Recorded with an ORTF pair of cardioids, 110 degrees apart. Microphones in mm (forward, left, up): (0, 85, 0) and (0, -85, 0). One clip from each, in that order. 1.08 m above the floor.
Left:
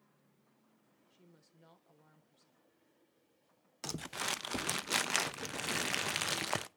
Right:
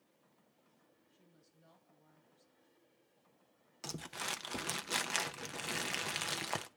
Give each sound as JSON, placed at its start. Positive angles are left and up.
{"t": 1.1, "sound": "a woman speaking", "azimuth_deg": 50, "distance_m": 3.0}
{"t": 3.8, "sound": "crumpling", "azimuth_deg": 20, "distance_m": 0.6}